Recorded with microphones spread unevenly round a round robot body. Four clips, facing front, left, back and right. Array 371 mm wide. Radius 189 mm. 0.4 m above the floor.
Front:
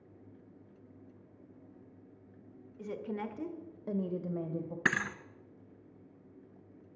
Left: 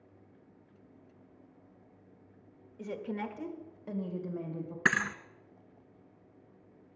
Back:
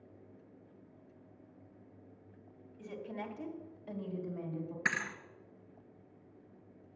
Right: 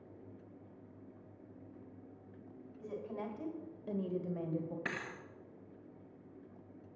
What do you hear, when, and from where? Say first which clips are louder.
2.8 s a woman speaking: left 5 dB, front 4 dB; 50° left, 1.4 m; by 4.8 s 30° right, 2 m
4.8 s a thud: left 11 dB, front 5 dB; 60° left, 0.6 m